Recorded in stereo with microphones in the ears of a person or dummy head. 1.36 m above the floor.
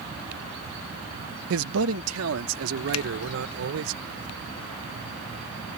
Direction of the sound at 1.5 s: 80° right.